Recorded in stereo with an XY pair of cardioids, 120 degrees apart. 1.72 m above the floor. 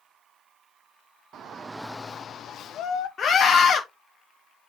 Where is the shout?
55° right, 0.7 m; by 3.1 s 65° left, 1.6 m.